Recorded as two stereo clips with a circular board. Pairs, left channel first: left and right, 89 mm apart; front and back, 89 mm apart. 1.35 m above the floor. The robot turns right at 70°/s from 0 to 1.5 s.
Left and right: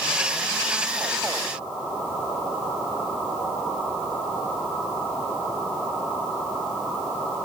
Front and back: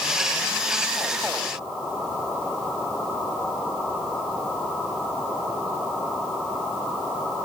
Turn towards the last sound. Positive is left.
No sound to turn to.